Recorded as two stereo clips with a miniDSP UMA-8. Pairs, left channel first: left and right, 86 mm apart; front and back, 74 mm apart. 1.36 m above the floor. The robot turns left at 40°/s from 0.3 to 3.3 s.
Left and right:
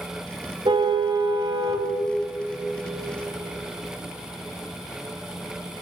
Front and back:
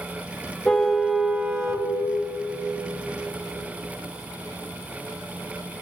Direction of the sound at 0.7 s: 85° right.